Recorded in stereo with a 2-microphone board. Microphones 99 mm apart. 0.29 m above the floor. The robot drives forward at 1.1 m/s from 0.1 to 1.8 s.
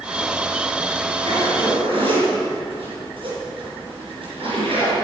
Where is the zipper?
75° right (ahead or behind), 3.5 m; by 4.9 s 70° right (ahead or behind), 3.5 m.